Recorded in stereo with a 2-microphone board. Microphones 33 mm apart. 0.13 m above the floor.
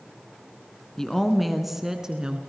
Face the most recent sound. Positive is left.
turn(degrees=-30)  # may be behind; listen again after turning